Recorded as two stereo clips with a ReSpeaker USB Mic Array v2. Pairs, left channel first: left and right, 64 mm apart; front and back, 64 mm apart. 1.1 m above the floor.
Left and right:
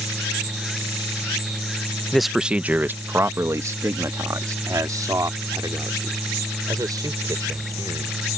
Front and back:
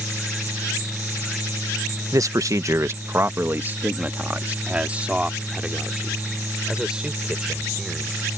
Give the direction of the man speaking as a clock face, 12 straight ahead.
6 o'clock.